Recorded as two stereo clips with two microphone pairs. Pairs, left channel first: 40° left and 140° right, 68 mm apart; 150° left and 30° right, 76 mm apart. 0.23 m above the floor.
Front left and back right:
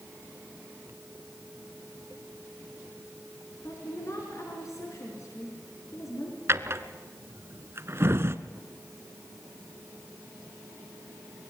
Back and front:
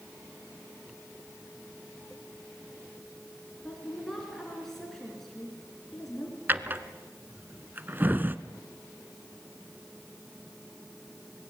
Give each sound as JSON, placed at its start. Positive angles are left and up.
{"t": 3.6, "sound": "a woman speaking", "azimuth_deg": 65, "distance_m": 3.5}
{"t": 6.5, "sound": "a drawer", "azimuth_deg": -95, "distance_m": 0.9}